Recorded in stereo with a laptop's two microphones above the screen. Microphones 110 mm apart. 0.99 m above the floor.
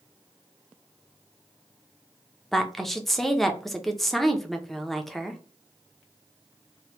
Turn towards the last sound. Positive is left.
turn(degrees=0)  # may be behind; listen again after turning